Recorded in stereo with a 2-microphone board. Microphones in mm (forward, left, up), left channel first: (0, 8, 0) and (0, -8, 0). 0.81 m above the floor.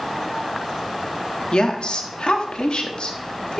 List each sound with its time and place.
1.5 s a woman speaking: 65° left (ahead or behind), 1.5 m